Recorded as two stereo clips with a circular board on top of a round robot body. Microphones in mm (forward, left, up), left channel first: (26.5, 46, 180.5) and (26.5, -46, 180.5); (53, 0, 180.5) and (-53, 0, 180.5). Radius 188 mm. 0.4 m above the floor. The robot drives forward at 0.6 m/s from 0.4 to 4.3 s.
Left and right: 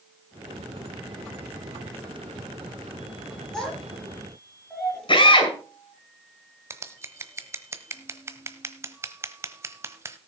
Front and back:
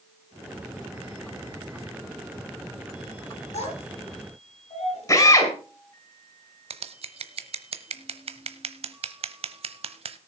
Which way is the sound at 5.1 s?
60° left.